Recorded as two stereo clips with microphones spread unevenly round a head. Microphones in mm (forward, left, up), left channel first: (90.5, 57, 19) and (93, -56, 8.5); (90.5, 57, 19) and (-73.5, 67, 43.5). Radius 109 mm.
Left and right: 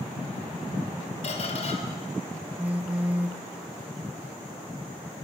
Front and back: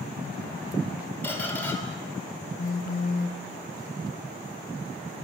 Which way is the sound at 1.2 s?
80° left.